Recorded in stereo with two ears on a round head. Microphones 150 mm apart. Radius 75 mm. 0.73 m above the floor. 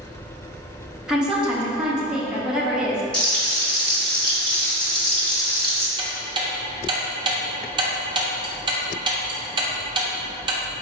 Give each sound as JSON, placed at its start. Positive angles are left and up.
{"t": 1.1, "sound": "a woman speaking", "side_deg": -5, "distance_m": 0.7}
{"t": 3.1, "sound": "frying", "side_deg": 5, "distance_m": 1.0}
{"t": 6.0, "sound": "ticking", "side_deg": -25, "distance_m": 0.6}